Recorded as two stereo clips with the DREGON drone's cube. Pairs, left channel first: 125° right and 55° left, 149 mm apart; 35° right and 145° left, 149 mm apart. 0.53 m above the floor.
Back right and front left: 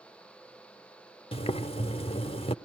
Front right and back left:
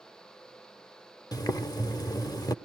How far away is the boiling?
About 0.8 m.